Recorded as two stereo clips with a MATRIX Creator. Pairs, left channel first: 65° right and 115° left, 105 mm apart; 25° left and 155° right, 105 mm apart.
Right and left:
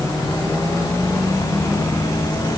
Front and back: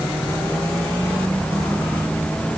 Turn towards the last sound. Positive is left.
No sound to turn to.